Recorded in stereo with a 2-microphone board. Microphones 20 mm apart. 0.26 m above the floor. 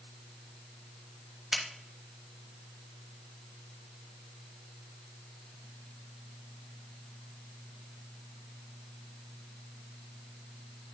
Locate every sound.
1.5 s a finger snap: 30° right (ahead or behind), 1.1 m